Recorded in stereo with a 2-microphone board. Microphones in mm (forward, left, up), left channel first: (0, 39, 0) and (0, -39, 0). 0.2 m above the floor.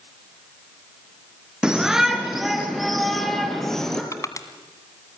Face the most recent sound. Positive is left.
turn(degrees=45)  # may be behind; listen again after turning